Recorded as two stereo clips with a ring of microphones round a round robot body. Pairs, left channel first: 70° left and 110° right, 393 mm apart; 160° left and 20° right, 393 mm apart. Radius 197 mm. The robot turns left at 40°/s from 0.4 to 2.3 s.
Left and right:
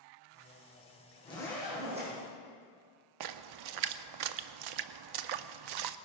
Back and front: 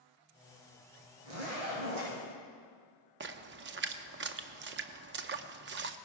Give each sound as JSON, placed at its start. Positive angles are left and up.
{"t": 1.2, "sound": "a zipper", "azimuth_deg": -10, "distance_m": 5.5}
{"t": 3.2, "sound": "a splash", "azimuth_deg": -85, "distance_m": 0.6}